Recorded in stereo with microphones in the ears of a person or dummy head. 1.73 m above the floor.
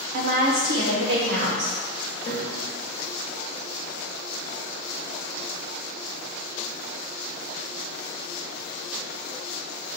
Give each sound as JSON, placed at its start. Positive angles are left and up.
{"t": 0.1, "sound": "a woman speaking", "side_deg": -45, "distance_m": 0.8}
{"t": 2.2, "sound": "a piano", "side_deg": 45, "distance_m": 0.8}